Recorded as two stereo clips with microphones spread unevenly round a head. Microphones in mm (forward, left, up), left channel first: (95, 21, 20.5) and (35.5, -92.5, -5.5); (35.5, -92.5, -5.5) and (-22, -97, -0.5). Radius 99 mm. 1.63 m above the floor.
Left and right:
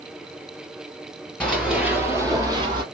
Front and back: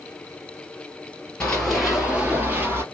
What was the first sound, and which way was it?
Running footsteps, 80° left.